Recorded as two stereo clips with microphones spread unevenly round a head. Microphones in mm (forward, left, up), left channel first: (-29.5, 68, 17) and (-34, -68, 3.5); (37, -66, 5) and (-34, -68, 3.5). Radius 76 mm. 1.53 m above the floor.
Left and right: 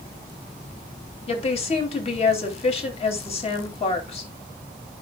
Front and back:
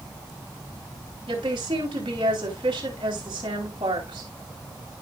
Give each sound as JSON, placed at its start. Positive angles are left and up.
{"t": 1.3, "sound": "a woman speaking", "azimuth_deg": 130, "distance_m": 3.5}